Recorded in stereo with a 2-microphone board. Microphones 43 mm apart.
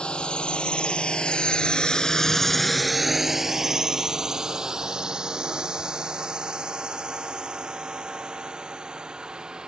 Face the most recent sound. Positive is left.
turn(degrees=-20)  # may be behind; listen again after turning